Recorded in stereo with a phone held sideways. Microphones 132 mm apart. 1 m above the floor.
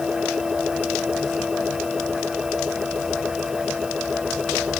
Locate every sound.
0.0 s a machine running: 5° right (ahead or behind)